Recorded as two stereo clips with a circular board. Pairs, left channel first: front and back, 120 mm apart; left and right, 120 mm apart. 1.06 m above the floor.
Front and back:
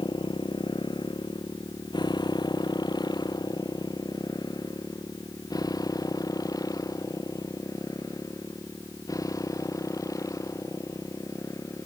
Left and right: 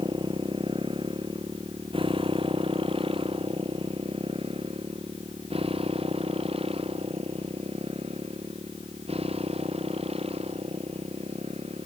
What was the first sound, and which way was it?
A motorcycle, 45° right.